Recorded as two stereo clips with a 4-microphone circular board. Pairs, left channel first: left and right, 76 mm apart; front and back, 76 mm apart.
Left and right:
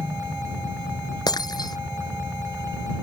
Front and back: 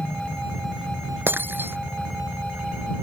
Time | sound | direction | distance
0.0 | a helicopter | 85° right | ?
1.3 | breaking glass | 115° left | ?